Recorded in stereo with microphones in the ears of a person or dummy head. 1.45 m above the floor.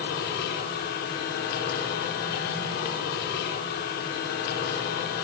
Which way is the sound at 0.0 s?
60° left (ahead or behind).